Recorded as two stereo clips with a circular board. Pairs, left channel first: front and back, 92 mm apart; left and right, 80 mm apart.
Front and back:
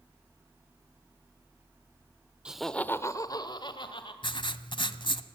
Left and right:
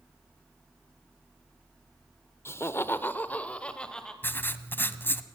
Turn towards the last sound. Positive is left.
turn(degrees=25)